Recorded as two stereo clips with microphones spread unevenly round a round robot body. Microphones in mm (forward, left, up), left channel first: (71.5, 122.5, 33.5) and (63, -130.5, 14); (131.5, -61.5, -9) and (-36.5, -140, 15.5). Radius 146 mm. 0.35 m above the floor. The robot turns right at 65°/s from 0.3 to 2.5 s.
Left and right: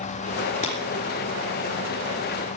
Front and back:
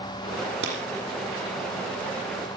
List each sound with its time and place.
0.6 s breaking glass: 155° left, 3.5 m; by 0.8 s 165° left, 3.5 m